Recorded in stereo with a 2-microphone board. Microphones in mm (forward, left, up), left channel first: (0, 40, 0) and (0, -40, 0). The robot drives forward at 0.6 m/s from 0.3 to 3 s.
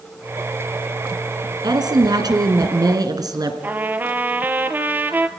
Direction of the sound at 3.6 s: 25° right (ahead or behind).